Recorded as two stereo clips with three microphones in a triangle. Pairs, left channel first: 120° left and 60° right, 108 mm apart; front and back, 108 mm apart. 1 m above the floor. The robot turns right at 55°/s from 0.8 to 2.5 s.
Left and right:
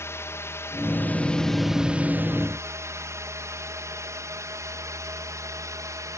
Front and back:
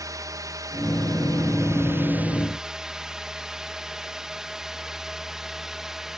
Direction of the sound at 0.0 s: 165° left.